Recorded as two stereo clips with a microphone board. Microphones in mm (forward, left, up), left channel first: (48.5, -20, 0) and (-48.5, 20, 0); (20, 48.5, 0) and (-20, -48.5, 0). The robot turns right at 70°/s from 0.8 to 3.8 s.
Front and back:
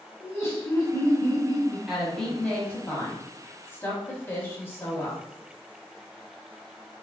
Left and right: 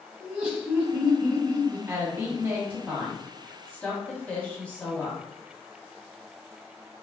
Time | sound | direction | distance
0.2 | laughter | 45° right | 1.1 m
1.9 | a woman speaking | 120° right | 1.0 m